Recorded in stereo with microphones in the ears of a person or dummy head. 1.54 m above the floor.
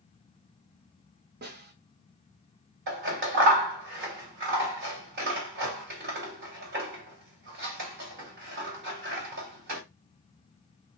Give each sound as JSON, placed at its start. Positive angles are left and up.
{"t": 1.4, "sound": "a snare drum", "side_deg": -50, "distance_m": 1.4}
{"t": 2.9, "sound": "scissors", "side_deg": -55, "distance_m": 1.9}